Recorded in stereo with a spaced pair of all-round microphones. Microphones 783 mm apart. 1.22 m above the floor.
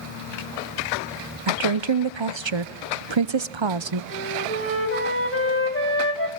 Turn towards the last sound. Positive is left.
turn(degrees=15)  # may be behind; listen again after turning